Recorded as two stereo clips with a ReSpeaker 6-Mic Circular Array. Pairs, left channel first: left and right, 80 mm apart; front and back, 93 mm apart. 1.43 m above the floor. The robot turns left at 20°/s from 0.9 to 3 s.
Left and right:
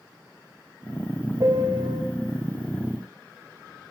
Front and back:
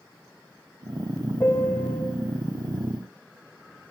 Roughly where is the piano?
Ahead right.